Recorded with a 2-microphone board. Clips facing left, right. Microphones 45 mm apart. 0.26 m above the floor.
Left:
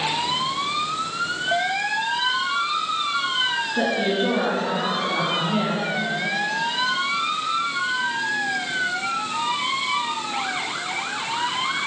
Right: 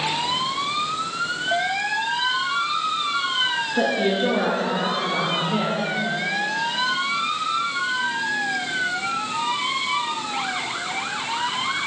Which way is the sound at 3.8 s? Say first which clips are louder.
Right 2 dB; 15° left (ahead or behind).